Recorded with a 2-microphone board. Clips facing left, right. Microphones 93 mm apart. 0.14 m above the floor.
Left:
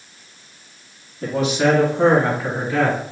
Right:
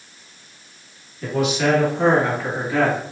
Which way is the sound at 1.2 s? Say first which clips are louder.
Left 2 dB; 40° left (ahead or behind).